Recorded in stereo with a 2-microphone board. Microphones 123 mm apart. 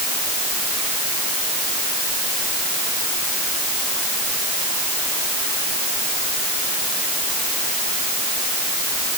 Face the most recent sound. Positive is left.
No sound to turn to.